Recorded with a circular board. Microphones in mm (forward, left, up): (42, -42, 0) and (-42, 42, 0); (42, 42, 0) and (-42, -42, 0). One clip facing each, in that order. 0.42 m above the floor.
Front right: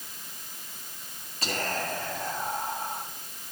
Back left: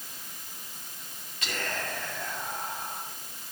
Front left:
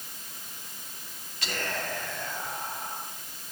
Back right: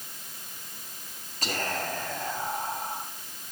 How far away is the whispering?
About 3 m.